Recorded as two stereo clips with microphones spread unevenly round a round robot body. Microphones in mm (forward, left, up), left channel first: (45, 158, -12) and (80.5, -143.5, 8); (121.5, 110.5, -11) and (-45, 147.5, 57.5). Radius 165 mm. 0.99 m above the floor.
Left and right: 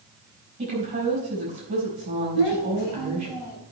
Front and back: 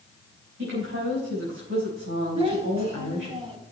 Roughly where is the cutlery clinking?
No cutlery clinking in this recording.